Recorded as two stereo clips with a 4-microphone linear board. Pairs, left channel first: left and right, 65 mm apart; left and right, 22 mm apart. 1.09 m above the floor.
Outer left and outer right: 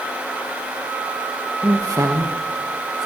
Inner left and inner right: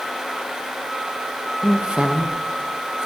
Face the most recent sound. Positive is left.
turn(degrees=-60)  # may be behind; listen again after turning